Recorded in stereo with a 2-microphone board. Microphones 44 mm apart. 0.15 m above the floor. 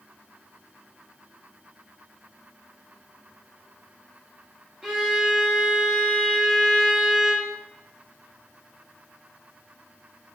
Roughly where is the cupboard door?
No cupboard door in this recording.